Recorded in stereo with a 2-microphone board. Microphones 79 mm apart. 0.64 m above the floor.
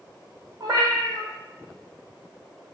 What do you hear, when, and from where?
0.6 s a cat meowing: 55° right (ahead or behind), 0.7 m